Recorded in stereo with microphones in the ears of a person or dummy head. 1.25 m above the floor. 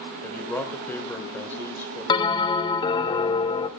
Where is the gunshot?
I don't hear a gunshot.